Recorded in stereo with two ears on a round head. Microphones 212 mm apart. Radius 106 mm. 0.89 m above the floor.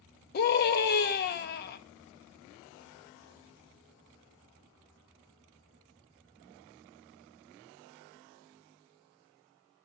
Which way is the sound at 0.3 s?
40° left (ahead or behind).